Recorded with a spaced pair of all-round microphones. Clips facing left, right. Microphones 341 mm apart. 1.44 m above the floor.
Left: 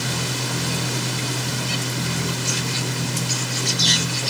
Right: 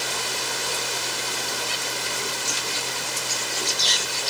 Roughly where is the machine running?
Left.